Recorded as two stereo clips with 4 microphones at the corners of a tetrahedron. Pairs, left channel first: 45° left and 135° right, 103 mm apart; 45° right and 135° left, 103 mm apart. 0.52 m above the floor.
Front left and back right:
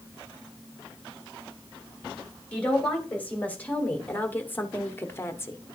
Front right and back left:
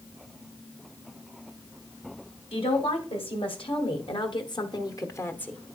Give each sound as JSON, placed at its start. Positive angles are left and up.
{"t": 2.5, "sound": "a woman speaking", "azimuth_deg": -30, "distance_m": 3.0}